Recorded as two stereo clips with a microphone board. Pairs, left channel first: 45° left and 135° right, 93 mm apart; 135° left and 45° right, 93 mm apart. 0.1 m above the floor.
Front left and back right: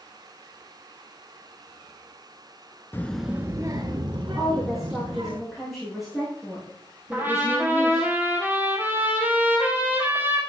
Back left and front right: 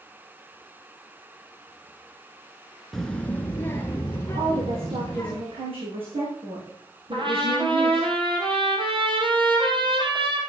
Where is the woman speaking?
45° right, 5.5 m.